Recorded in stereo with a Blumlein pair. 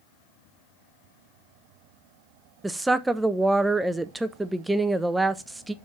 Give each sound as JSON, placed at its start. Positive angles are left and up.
{"t": 2.6, "sound": "a woman speaking", "azimuth_deg": -5, "distance_m": 0.6}